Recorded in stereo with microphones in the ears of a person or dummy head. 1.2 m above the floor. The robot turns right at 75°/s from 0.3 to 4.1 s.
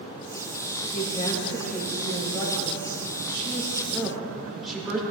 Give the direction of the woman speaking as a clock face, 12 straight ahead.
8 o'clock.